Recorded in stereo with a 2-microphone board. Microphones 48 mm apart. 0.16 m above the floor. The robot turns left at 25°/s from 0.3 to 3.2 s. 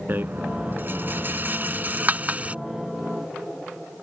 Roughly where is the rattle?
Right.